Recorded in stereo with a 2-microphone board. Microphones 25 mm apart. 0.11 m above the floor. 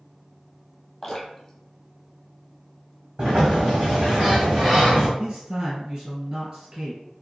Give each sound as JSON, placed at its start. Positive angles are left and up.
{"t": 1.0, "sound": "dripping", "side_deg": 25, "distance_m": 0.9}
{"t": 3.2, "sound": "a sliding door", "side_deg": -40, "distance_m": 1.4}
{"t": 5.2, "sound": "a man speaking", "side_deg": -35, "distance_m": 1.9}